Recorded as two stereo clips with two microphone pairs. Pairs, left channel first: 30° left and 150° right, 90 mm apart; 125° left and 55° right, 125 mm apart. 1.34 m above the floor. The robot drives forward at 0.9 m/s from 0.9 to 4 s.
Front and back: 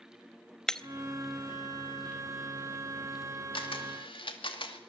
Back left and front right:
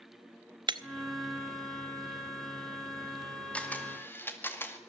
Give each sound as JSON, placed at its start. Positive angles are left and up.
{"t": 0.7, "sound": "breaking glass", "azimuth_deg": -50, "distance_m": 0.8}
{"t": 3.5, "sound": "a camera shutter", "azimuth_deg": 45, "distance_m": 2.5}